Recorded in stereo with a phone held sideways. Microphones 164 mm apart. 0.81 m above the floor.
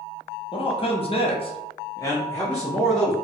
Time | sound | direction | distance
0.5 | a man speaking | 35° left (ahead or behind) | 0.8 m